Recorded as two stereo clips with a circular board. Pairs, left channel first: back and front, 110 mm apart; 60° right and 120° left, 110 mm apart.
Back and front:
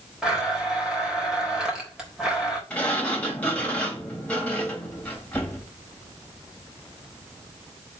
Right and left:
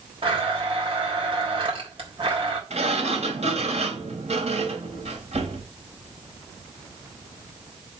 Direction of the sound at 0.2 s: 85° left.